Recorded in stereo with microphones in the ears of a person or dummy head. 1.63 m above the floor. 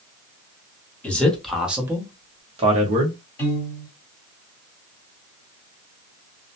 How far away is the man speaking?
About 1.1 m.